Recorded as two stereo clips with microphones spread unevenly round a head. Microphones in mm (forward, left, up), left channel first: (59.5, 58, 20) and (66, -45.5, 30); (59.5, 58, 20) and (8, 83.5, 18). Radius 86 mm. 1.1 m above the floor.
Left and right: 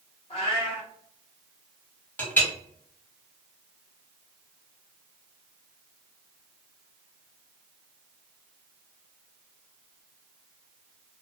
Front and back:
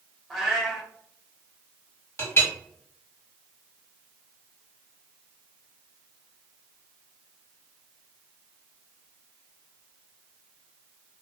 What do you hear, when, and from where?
0.3 s a cat meowing: 60° left, 1.1 m
2.2 s a clink: 20° left, 1.3 m